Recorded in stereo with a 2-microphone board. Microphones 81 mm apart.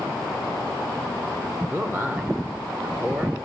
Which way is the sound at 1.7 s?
25° right (ahead or behind).